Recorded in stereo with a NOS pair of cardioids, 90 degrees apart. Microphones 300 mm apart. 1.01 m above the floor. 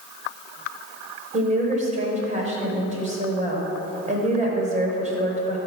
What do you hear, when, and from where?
1.3 s a woman speaking: 25° right, 3.5 m